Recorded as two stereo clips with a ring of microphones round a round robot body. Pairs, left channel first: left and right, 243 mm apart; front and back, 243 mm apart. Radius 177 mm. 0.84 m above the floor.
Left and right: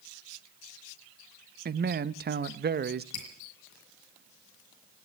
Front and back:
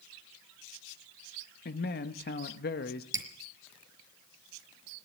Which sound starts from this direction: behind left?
Dripping, at 3.1 s.